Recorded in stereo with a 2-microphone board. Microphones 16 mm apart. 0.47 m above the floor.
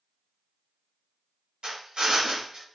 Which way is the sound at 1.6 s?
80° right.